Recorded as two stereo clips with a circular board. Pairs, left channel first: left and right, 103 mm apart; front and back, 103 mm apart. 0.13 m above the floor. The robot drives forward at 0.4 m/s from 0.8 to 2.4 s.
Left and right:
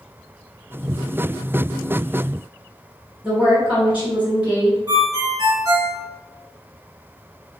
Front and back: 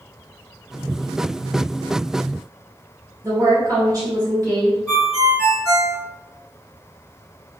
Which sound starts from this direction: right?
A ringtone, at 4.9 s.